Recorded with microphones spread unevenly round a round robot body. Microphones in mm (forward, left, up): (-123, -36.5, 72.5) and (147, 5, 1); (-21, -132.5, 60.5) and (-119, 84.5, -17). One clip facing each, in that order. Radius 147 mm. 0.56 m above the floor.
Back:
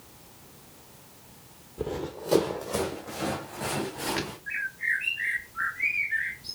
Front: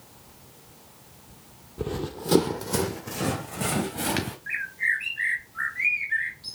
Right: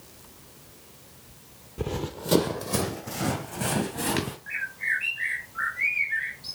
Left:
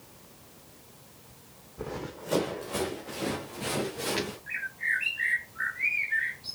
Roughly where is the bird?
Ahead.